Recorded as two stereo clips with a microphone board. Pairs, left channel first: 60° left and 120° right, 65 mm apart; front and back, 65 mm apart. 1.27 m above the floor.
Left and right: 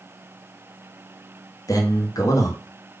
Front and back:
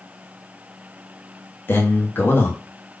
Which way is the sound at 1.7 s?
50° left.